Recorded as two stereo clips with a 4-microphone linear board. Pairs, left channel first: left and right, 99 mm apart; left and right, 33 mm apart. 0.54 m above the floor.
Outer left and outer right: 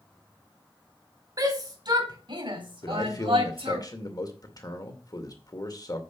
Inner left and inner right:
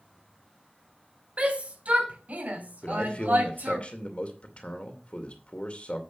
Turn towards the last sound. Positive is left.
turn(degrees=40)  # may be behind; listen again after turning